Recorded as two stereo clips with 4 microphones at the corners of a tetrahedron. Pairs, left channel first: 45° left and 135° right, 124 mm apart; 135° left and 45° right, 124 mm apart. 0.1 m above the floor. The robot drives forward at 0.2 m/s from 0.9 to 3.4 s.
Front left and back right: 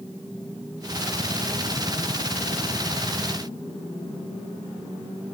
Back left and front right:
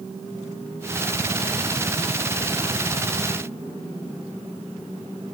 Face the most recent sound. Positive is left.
No sound to turn to.